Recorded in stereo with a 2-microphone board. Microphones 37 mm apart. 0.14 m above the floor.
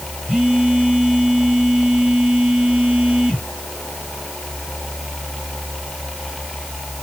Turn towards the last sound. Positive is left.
turn(degrees=-30)  # may be behind; listen again after turning